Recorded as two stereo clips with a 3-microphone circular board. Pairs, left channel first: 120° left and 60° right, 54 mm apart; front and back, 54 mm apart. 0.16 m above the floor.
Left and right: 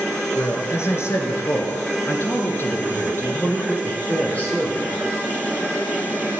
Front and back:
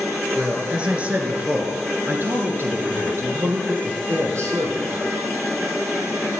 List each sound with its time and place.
0.3 s a man speaking: 105° left, 3 m; by 5.0 s 175° right, 4 m